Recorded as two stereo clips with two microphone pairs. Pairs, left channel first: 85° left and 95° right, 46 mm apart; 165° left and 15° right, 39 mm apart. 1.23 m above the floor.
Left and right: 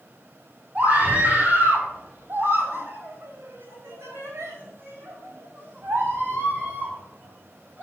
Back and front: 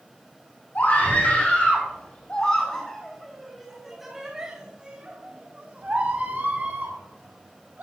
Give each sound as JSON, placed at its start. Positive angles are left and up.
{"t": 0.8, "sound": "a scream", "azimuth_deg": -155, "distance_m": 5.5}